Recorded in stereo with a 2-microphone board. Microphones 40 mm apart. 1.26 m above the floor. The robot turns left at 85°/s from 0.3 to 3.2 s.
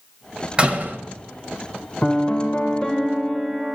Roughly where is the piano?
Behind left.